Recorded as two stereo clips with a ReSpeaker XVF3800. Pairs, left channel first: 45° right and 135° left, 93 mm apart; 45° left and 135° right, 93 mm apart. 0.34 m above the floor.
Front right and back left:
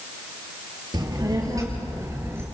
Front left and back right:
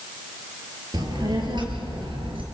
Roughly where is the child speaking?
Behind.